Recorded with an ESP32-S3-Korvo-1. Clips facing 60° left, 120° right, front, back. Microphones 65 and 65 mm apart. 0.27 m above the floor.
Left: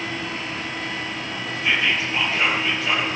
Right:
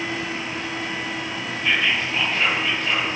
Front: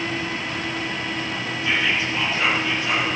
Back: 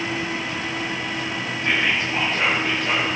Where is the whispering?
140° left, 5.5 m.